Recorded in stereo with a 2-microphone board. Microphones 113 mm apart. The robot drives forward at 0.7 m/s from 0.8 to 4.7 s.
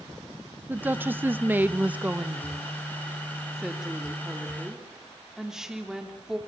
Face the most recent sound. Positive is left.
turn(degrees=-5)  # may be behind; listen again after turning